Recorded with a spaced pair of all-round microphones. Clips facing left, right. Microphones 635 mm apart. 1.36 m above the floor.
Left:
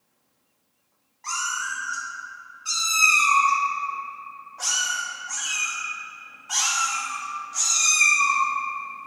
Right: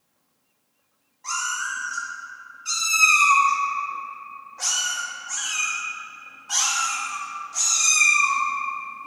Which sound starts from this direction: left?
A cat meowing, at 1.2 s.